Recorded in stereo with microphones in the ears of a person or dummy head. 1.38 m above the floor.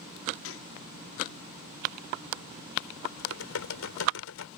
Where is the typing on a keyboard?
85° left.